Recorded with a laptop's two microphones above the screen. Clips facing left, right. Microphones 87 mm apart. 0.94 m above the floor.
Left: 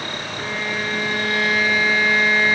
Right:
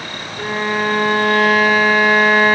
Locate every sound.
0.4 s a violin: 55° right (ahead or behind)